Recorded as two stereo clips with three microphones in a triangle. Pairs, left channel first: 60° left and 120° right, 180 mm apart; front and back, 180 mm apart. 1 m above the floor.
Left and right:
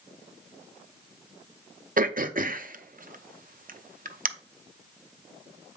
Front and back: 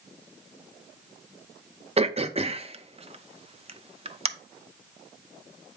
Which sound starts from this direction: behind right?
Throat clearing, at 2.0 s.